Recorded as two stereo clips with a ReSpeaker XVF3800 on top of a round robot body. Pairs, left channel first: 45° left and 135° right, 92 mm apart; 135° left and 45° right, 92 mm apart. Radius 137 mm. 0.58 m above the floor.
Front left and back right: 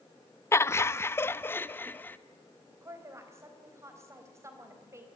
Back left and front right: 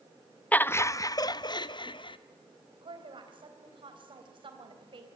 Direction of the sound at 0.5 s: 75° left.